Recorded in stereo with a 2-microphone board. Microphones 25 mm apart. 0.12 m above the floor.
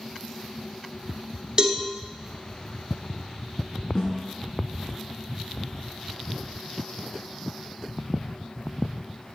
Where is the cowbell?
30° right (ahead or behind), 0.9 m.